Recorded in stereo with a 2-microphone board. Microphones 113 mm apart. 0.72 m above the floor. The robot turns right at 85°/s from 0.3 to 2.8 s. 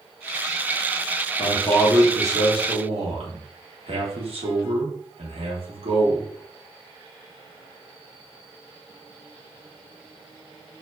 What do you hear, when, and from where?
1.4 s a man speaking: 135° left, 0.9 m; by 6.3 s 105° right, 0.9 m